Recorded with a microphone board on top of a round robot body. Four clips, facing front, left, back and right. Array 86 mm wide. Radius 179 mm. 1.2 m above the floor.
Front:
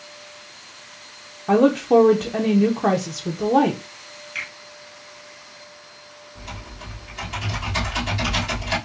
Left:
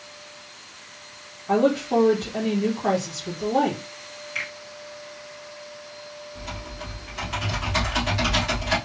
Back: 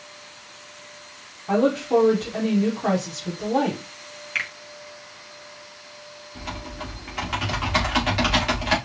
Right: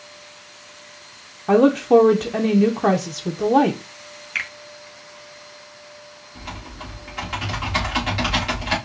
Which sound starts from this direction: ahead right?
A woman speaking, at 1.5 s.